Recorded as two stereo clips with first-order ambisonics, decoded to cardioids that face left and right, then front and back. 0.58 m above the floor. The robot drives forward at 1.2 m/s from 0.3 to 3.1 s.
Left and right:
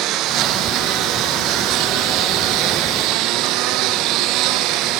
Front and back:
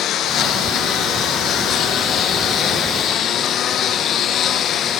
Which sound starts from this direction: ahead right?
A lawn mower, at 0.0 s.